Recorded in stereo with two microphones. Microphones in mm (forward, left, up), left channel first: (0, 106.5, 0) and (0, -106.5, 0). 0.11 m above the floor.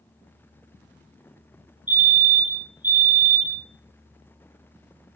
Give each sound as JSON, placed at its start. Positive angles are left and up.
{"t": 1.9, "sound": "a fire alarm", "side_deg": -10, "distance_m": 2.0}